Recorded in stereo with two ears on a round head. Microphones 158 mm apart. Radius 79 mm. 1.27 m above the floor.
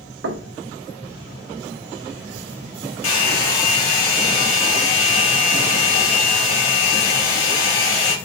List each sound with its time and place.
0.2 s knocking: 70° right (ahead or behind), 0.9 m
3.0 s a hair dryer: 80° left, 2 m